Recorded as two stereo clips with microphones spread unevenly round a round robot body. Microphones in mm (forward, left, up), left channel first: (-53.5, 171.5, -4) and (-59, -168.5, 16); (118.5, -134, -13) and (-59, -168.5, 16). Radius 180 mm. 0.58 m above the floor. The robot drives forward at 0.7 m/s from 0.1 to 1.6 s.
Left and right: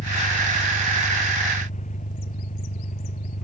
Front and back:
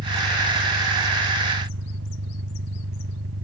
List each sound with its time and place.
0.0 s an engine running: 155° left; by 3.5 s 160° left